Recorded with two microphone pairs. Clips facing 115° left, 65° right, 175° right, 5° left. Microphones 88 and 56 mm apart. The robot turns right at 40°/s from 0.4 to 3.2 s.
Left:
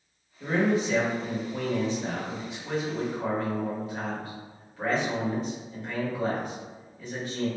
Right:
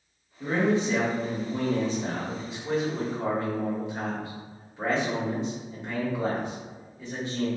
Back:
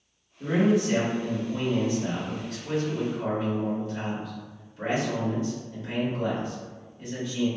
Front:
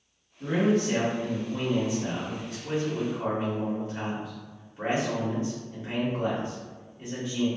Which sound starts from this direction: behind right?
A man speaking, at 0.4 s.